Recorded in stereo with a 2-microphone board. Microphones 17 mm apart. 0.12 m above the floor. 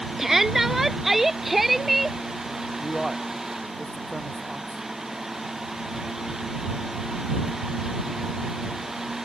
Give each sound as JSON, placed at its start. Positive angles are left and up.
{"t": 0.2, "sound": "a shout", "side_deg": -20}
{"t": 2.8, "sound": "a man speaking", "side_deg": -10}